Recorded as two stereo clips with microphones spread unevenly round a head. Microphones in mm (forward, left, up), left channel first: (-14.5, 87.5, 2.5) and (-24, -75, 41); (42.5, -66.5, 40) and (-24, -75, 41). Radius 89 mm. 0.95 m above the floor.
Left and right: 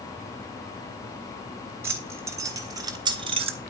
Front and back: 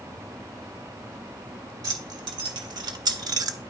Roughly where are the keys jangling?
Behind.